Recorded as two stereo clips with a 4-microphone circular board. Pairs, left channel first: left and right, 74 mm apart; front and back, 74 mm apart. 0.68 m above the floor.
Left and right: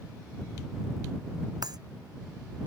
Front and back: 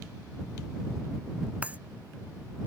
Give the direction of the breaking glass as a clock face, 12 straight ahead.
4 o'clock.